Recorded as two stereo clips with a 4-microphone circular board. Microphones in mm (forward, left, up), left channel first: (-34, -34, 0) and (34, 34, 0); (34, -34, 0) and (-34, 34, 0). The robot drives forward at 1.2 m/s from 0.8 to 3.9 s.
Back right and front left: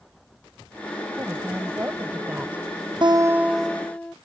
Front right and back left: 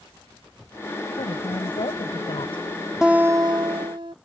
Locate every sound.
1.2 s a woman speaking: 20° right; by 2.7 s 30° right
3.0 s a guitar: 55° left; by 4.2 s 150° left